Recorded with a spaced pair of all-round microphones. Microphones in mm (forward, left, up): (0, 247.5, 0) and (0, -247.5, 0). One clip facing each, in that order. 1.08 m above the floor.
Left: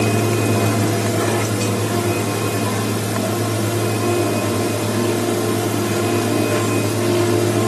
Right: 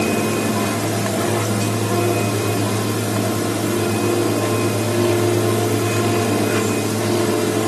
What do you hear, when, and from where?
Only background noise.